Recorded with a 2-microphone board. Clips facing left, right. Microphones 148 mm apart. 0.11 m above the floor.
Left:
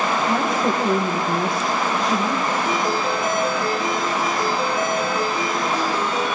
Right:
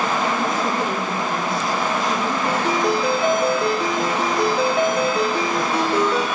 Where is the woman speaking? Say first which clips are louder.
Left 1 dB; 25° left (ahead or behind), 4 m.